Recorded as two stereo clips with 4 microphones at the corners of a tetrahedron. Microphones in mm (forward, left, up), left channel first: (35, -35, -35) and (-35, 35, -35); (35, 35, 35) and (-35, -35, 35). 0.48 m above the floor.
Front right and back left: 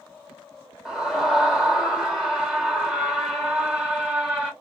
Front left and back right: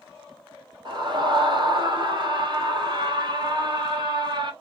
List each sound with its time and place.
0.8 s a scream: 140° right, 1.4 m